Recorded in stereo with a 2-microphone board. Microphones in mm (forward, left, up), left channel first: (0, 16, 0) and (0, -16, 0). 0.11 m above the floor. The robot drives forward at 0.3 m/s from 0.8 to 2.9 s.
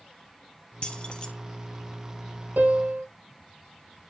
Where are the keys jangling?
30° left (ahead or behind), 1.6 m; by 1.3 s 25° left (ahead or behind), 1.7 m.